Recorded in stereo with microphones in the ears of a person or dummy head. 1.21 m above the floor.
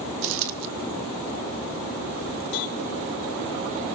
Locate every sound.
0.2 s a dropped coin: 70° right (ahead or behind), 1.4 m
2.5 s a cowbell: 70° left (ahead or behind), 4 m